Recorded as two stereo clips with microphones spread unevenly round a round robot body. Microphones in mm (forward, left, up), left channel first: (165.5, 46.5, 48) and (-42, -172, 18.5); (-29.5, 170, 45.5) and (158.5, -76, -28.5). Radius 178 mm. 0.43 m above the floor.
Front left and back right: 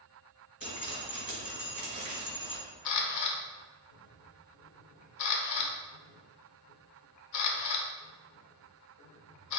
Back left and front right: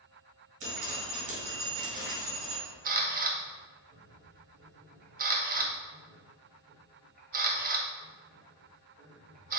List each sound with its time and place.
0.6 s dripping: 65° right, 1.7 m
2.9 s a camera shutter: 10° left, 0.7 m